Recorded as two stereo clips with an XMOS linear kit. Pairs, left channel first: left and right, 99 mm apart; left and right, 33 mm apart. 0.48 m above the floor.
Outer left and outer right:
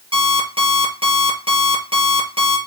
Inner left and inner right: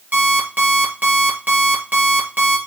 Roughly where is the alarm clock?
Right.